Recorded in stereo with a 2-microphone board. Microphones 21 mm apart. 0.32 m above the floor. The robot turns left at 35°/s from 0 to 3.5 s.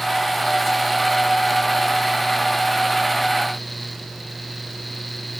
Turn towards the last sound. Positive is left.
No sound to turn to.